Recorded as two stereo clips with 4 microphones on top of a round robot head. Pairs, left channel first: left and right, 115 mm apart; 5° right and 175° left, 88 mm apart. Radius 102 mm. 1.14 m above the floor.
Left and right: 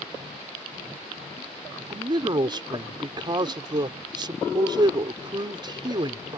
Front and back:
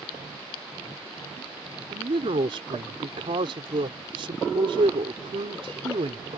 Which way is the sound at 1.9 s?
140° right.